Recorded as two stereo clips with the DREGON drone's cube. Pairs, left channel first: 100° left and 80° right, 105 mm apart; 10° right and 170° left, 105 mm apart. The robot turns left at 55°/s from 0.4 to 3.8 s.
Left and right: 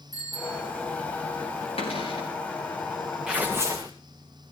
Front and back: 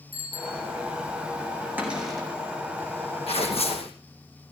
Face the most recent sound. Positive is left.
turn(degrees=-25)